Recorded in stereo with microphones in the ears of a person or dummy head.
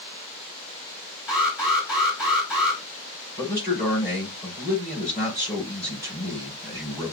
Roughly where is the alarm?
Centre.